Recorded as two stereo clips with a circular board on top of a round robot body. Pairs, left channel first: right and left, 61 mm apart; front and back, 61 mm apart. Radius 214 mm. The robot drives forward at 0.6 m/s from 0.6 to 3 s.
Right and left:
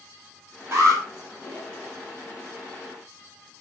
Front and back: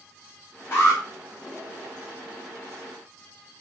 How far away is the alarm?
About 8 m.